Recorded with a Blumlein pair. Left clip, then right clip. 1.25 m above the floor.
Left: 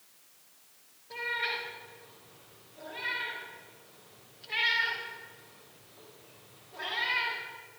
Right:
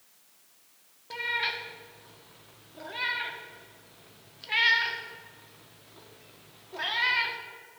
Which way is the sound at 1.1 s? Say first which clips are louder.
Right 3 dB; 30° right.